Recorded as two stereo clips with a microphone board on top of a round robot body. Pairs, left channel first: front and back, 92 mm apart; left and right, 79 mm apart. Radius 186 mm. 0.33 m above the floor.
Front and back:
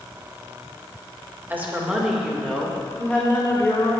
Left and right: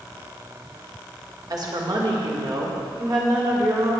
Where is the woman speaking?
115° right, 1.9 m; by 3.9 s 55° right, 2.5 m.